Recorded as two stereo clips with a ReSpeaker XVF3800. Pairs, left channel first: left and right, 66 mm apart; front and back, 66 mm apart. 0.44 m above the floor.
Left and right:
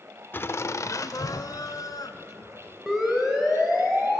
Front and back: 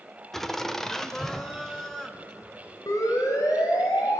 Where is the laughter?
80° left, 0.8 m; by 2.8 s 85° left, 2.5 m.